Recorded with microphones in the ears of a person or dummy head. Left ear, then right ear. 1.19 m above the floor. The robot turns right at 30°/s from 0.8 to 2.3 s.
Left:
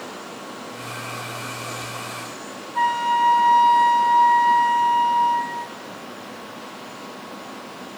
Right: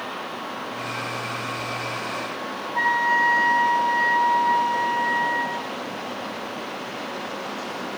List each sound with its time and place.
2.8 s a flute: 5° right (ahead or behind), 0.6 m